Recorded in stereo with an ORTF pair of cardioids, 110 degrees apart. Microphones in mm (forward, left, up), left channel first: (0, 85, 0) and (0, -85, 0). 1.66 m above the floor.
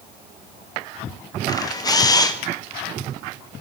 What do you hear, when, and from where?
1.5 s a camera shutter: 20° left, 1.3 m